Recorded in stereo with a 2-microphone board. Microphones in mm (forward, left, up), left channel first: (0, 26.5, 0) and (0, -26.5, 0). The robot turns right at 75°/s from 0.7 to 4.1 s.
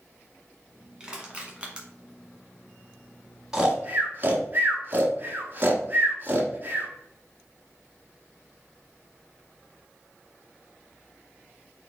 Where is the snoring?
10° right (ahead or behind), 1.3 m; by 6.9 s 35° right (ahead or behind), 1.3 m.